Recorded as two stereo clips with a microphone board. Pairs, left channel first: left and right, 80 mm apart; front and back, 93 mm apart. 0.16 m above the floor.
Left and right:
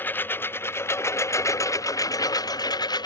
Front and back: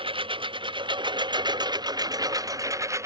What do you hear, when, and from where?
0.0 s a lawn mower: 155° left; by 3.1 s 120° left